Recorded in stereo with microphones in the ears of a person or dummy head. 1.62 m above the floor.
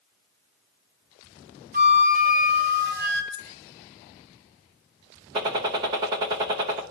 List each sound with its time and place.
1.7 s a flute: 45° right (ahead or behind), 1.8 m
3.3 s a dropped coin: centre (ahead or behind), 1.4 m
5.3 s a gunshot: 20° right (ahead or behind), 0.8 m